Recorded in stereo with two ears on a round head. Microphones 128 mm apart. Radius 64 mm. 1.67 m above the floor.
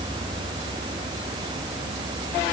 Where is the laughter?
I don't hear laughter.